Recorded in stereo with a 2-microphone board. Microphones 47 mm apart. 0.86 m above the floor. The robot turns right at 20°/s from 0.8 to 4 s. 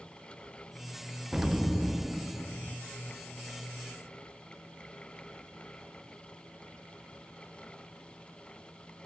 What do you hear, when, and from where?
1.3 s an explosion: 10° right (ahead or behind), 0.6 m; by 2.8 s 20° left (ahead or behind), 0.6 m